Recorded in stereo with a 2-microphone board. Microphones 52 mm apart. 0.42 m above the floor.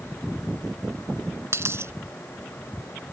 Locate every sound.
1.5 s a dropped coin: 55° right (ahead or behind)